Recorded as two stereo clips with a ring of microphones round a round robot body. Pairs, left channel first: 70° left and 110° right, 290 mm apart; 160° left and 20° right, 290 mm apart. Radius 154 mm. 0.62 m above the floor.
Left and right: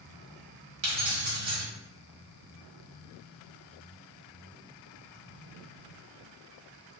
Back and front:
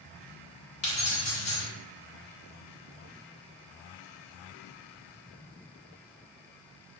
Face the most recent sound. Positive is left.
turn(degrees=-160)